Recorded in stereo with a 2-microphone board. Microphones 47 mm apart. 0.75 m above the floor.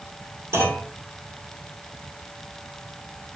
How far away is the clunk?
About 1.8 m.